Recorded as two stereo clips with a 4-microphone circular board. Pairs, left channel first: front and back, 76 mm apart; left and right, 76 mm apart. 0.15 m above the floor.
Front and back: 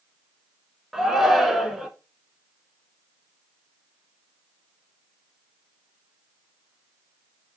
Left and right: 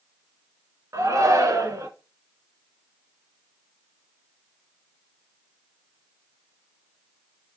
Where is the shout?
95° right, 1.5 m.